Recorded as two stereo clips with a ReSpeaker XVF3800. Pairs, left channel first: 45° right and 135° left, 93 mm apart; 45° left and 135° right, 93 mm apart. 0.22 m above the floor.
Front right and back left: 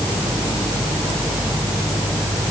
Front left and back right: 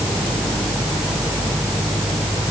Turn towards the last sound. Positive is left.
No sound to turn to.